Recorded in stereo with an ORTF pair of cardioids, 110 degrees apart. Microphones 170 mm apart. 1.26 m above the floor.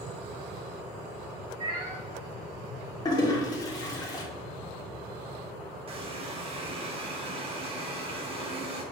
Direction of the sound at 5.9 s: 35° right.